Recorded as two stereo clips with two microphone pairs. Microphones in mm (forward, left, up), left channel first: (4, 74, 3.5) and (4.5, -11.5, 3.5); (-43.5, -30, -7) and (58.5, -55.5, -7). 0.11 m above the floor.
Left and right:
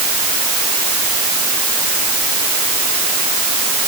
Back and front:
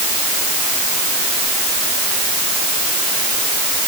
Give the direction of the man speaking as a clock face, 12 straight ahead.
I don't hear a man speaking.